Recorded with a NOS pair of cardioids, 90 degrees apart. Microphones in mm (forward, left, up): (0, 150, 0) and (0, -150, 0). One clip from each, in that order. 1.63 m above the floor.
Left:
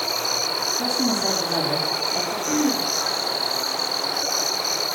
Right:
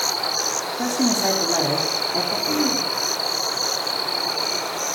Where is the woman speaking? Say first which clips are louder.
Right 1 dB; 20° right, 4 m.